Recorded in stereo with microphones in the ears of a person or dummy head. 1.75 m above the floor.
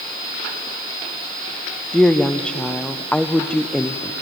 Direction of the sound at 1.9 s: 5° left (ahead or behind).